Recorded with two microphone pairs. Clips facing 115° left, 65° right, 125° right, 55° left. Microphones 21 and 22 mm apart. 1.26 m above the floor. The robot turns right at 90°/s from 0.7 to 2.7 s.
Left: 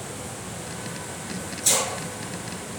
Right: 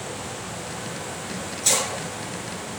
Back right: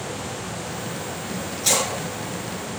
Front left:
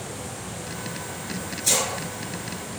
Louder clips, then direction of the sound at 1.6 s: Right 1 dB, back right 2 dB; 150° right.